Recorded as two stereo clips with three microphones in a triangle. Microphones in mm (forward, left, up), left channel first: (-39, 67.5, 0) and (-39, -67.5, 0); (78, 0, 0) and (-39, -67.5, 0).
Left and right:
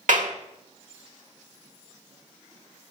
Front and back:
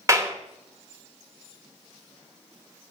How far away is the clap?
About 1.3 m.